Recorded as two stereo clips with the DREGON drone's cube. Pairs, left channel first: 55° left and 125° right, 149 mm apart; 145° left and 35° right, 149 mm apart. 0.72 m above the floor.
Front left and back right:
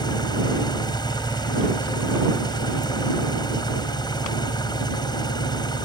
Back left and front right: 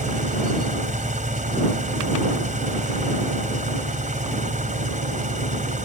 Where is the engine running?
5° right.